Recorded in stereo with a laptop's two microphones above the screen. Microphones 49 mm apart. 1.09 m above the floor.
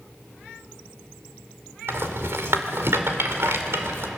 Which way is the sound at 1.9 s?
60° right (ahead or behind).